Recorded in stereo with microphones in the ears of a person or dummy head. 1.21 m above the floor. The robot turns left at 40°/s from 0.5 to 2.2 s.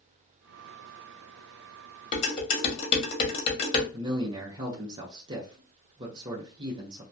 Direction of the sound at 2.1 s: 45° left (ahead or behind).